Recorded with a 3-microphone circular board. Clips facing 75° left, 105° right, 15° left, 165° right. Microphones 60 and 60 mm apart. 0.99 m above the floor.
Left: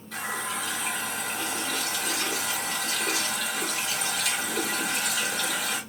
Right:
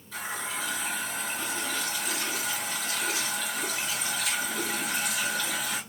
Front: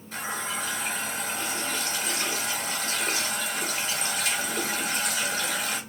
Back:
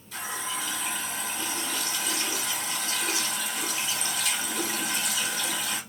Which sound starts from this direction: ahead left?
A running tap, at 0.1 s.